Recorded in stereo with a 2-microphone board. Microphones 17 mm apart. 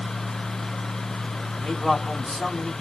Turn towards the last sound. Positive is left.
turn(degrees=70)  # may be behind; listen again after turning